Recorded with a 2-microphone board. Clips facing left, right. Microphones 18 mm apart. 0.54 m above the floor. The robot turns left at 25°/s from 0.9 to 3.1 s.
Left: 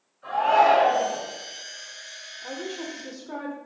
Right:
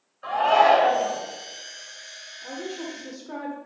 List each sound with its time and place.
0.2 s a shout: 45° right (ahead or behind), 3 m; by 1.2 s 40° right (ahead or behind), 3 m
2.4 s a woman speaking: 20° left (ahead or behind), 1.3 m; by 3.6 s 5° left (ahead or behind), 1.3 m